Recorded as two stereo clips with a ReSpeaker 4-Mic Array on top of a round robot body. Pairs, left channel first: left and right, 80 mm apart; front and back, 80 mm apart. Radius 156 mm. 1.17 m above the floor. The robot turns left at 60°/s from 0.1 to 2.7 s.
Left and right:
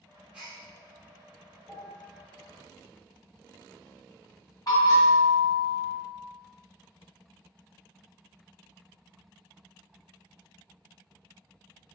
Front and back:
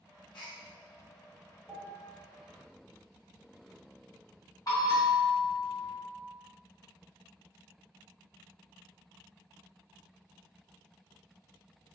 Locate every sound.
0.3 s a gasp: 10° right, 0.6 m; by 0.6 s 25° right, 0.6 m
1.7 s a piano: 90° left, 1.7 m; by 2.2 s 55° left, 1.7 m
4.7 s a bell: 45° left, 1.3 m